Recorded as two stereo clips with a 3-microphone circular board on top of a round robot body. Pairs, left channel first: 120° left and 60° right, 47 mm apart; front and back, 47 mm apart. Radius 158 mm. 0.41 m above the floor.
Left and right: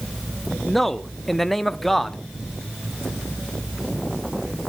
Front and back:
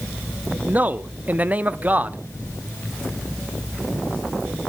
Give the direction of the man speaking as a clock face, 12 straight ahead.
5 o'clock.